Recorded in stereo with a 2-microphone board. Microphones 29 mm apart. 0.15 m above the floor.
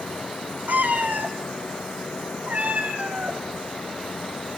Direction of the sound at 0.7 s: 75° right (ahead or behind).